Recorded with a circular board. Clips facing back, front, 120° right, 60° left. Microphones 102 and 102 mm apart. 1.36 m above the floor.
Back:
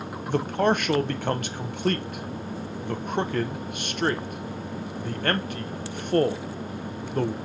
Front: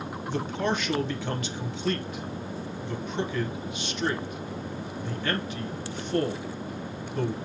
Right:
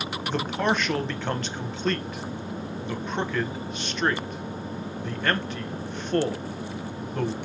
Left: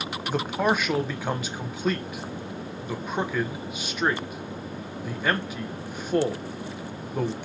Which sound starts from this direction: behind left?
A man speaking, at 0.3 s.